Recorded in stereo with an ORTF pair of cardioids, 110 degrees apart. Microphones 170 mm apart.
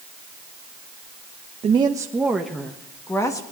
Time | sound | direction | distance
1.6 | a woman speaking | 35° right | 1.0 m